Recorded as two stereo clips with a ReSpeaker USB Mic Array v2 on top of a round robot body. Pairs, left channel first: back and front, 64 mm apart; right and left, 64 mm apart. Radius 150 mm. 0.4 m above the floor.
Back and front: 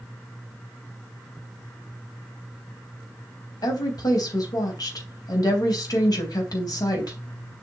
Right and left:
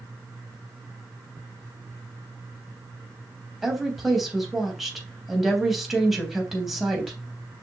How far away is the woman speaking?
About 3.5 m.